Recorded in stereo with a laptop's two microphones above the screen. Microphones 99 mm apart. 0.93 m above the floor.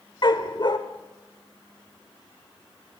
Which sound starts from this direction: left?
A dog barking, at 0.2 s.